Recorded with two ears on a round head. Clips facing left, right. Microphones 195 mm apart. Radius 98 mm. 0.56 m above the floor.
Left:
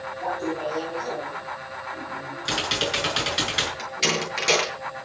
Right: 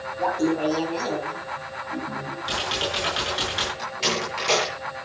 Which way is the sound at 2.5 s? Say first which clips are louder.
Left 2 dB; 30° left (ahead or behind).